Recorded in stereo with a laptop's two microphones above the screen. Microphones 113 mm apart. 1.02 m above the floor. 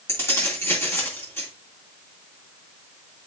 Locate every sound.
0.1 s keys jangling: 20° left (ahead or behind), 1.9 m